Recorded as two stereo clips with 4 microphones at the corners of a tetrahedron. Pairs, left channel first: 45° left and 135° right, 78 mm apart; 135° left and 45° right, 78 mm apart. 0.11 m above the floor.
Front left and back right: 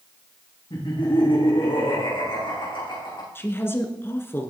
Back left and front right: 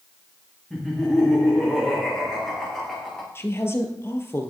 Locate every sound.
0.7 s laughter: 50° left, 8 m
3.4 s a woman speaking: 95° left, 1.9 m